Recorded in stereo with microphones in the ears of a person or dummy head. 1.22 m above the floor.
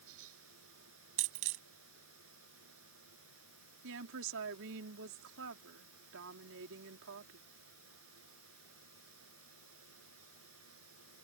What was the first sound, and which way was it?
A fan, 85° right.